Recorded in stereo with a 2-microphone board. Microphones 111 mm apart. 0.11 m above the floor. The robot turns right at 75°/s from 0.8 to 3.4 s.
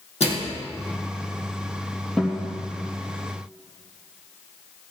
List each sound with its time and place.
0.2 s a microwave: 70° left (ahead or behind), 3.5 m
2.2 s a guitar: centre (ahead or behind), 3 m; by 2.4 s 15° right (ahead or behind), 3 m